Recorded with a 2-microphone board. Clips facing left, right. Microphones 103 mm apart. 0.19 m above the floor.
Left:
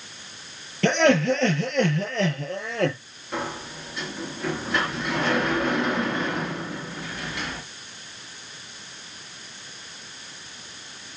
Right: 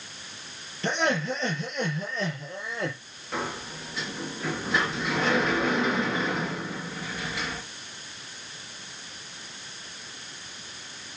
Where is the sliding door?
Centre (ahead or behind), 3 m.